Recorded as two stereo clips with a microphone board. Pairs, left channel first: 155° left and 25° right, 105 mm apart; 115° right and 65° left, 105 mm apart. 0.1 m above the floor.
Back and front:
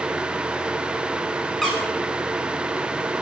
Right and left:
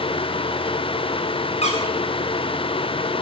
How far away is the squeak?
About 6.5 m.